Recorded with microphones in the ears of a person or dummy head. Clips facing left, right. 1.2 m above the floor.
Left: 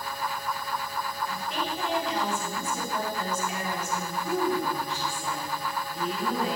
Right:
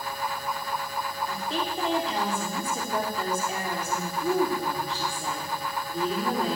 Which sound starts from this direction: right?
A woman speaking, at 1.3 s.